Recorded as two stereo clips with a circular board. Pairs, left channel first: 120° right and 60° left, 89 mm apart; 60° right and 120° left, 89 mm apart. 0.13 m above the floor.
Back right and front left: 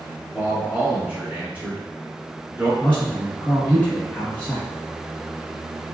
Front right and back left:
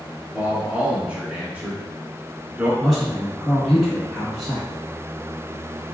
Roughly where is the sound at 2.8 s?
Behind right.